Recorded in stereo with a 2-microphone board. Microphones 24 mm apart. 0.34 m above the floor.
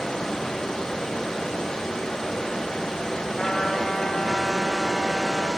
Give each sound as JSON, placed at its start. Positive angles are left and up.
{"t": 0.0, "sound": "running water", "side_deg": 40, "distance_m": 4.5}
{"t": 3.4, "sound": "a trumpet", "side_deg": 45, "distance_m": 2.0}